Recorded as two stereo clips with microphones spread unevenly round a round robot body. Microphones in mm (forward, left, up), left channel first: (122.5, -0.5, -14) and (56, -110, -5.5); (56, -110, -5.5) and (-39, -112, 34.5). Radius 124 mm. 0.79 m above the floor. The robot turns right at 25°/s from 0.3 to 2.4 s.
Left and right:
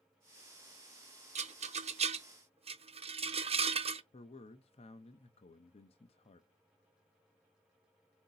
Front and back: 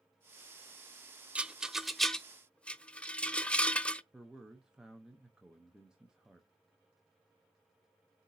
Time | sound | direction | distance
1.4 | a rattle | 120° right | 0.5 m
4.1 | a man speaking | 75° left | 0.6 m